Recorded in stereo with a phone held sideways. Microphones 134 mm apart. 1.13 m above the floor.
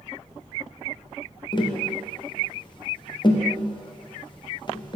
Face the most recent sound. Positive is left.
turn(degrees=35)  # may be behind; listen again after turning